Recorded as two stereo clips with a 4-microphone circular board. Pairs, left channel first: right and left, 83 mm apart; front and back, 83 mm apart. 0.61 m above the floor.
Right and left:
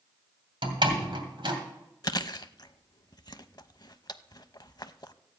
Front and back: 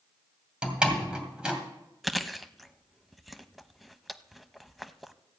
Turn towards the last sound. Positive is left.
turn(degrees=-90)